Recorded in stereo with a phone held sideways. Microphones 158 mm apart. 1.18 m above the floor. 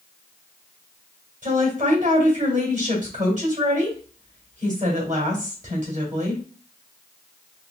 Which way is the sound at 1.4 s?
50° right (ahead or behind).